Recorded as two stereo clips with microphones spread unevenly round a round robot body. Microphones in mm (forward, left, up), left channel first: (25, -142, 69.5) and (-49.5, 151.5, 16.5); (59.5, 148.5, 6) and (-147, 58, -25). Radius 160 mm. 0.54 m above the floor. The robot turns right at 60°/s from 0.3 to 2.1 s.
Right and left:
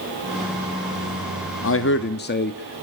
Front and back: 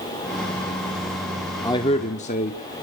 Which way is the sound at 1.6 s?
55° right.